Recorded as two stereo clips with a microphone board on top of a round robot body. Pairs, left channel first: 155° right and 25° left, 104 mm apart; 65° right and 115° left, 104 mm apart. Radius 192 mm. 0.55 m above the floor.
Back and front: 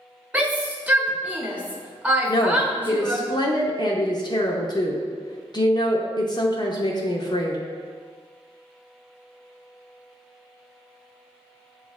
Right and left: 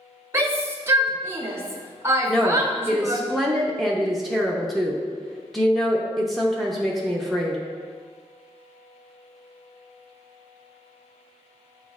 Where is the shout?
80° left, 1.2 m.